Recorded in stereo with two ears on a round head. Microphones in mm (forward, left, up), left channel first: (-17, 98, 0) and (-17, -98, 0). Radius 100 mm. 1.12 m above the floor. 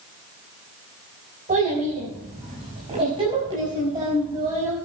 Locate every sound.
1.5 s a child speaking: 35° right (ahead or behind), 5.5 m; by 4.8 s 15° right (ahead or behind), 5.5 m